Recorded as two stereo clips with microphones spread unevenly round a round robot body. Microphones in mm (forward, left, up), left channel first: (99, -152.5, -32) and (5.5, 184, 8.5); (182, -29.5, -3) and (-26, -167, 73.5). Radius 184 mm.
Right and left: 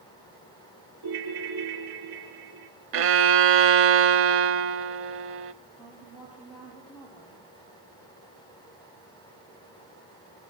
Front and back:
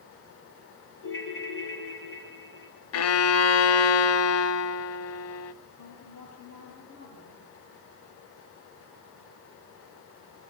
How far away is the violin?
About 0.8 m.